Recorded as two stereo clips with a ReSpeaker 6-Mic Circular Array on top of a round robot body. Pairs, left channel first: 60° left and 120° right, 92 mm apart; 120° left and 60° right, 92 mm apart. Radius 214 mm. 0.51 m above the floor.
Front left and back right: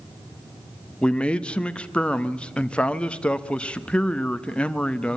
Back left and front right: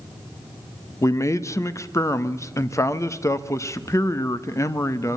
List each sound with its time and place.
1.0 s a man speaking: 130° left, 1.4 m